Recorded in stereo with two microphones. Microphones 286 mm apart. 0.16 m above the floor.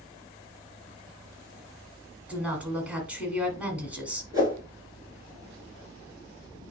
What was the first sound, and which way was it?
A woman speaking, 5° right (ahead or behind).